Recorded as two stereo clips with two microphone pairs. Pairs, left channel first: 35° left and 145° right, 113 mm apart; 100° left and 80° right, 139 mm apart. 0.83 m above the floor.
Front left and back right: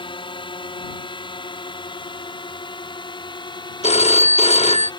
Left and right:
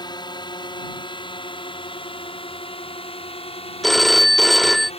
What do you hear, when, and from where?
0.0 s a drone: 55° left; by 5.0 s 70° left
3.8 s a phone ringing: 10° left